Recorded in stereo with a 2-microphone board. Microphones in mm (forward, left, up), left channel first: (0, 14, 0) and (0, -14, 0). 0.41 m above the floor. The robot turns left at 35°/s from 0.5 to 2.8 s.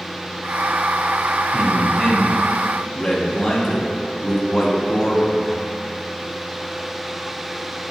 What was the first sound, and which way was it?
A man speaking, 150° right.